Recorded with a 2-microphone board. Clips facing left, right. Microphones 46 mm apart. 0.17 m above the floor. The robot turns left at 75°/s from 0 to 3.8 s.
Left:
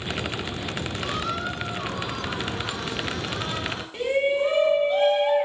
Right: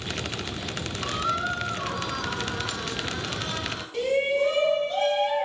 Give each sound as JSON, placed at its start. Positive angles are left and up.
{"t": 1.0, "sound": "a squeak", "azimuth_deg": 0, "distance_m": 1.5}
{"t": 3.9, "sound": "a shout", "side_deg": 15, "distance_m": 1.0}